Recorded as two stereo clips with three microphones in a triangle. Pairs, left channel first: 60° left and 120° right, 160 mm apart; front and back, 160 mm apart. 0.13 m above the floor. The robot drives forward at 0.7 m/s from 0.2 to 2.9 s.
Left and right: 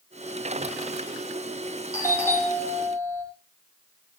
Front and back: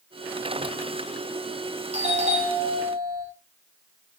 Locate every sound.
1.9 s a doorbell: 135° left, 5.5 m; by 3.2 s 140° left, 6 m